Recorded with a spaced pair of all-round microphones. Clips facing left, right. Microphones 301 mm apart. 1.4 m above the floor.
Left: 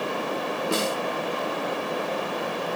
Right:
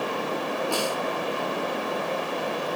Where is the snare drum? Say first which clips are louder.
Left 4 dB; 25° left (ahead or behind), 1.2 m.